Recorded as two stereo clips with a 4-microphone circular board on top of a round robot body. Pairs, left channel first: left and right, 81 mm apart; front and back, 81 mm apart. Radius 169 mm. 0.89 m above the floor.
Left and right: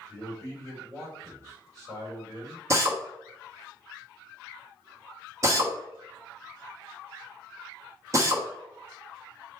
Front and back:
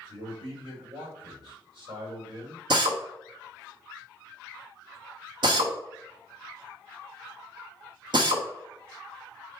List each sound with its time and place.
0.1 s a man speaking: 145° right, 4 m
2.7 s a drill: 145° right, 0.9 m